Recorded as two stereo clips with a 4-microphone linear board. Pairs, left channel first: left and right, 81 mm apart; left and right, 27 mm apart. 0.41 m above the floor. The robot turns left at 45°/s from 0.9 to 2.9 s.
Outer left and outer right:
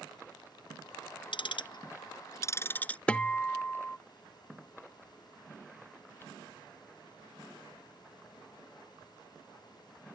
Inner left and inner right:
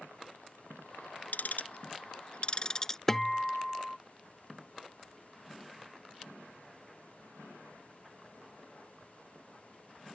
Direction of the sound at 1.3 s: 90° left.